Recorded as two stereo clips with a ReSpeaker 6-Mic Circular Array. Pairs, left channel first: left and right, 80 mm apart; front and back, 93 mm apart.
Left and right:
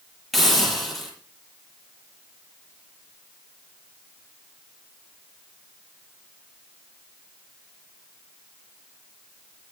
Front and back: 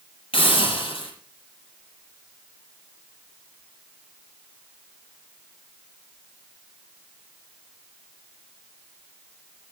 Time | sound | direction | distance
0.3 | a hiss | straight ahead | 8 m